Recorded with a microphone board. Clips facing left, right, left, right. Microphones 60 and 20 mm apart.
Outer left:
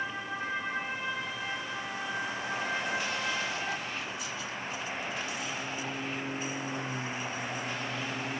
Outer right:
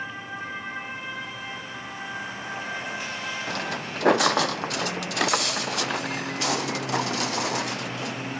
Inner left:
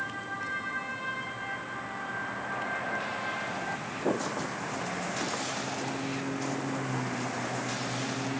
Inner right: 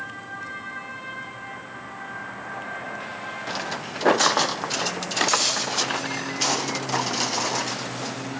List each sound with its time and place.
3.5 s footsteps: 70° right (ahead or behind); by 8.4 s 75° right (ahead or behind)